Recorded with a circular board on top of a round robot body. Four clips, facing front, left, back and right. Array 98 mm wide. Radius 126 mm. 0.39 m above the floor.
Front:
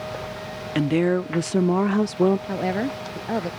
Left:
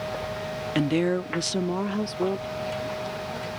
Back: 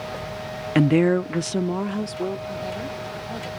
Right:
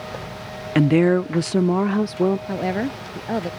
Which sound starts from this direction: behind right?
A woman speaking, at 0.8 s.